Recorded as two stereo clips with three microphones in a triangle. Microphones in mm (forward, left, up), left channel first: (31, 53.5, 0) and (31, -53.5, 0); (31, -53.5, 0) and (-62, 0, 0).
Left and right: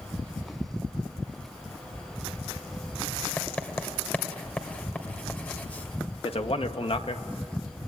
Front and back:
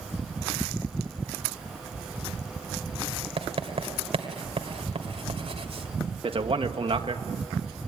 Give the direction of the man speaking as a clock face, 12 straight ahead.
8 o'clock.